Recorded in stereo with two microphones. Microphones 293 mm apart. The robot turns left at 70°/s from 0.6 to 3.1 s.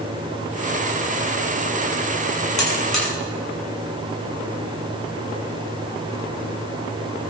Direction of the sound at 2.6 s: 75° left (ahead or behind).